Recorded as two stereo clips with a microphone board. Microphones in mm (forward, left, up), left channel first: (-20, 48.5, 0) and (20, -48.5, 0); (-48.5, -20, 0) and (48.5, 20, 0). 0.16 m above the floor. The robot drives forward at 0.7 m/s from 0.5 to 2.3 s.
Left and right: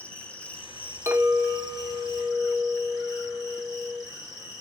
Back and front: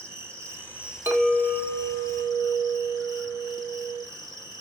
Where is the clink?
30° right, 0.9 m; by 4.0 s 145° right, 0.8 m.